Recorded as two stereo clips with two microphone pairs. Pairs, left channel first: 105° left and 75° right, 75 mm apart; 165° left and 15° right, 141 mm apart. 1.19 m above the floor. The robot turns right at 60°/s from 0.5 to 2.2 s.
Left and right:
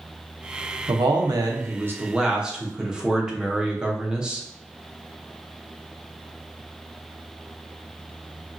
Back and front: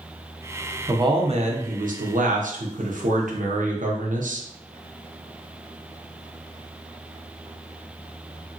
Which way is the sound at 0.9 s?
80° right.